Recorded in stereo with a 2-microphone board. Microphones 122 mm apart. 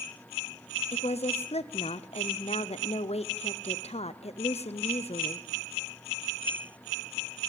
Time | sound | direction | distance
0.9 | a woman speaking | 60° left (ahead or behind) | 0.6 m